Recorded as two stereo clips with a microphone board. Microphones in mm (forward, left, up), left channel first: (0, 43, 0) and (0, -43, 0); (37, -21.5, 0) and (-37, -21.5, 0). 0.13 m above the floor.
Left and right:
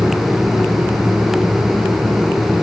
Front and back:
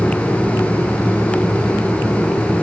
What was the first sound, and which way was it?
Only background noise.